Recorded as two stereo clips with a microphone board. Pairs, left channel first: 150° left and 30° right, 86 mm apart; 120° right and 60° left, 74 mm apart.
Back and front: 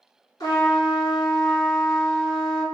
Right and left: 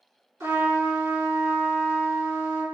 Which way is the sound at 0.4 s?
100° left.